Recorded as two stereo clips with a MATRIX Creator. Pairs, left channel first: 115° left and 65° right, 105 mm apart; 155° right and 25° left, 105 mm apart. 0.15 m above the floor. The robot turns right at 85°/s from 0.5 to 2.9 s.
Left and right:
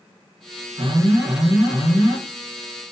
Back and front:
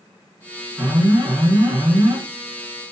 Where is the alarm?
55° right, 2.5 m; by 2.2 s 70° left, 2.5 m.